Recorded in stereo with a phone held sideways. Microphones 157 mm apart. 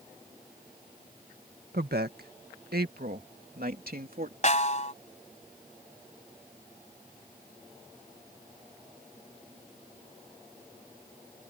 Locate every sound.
1.7 s a woman speaking: 85° right; by 4.3 s 70° right (ahead or behind)
4.4 s a snare drum: 50° left (ahead or behind)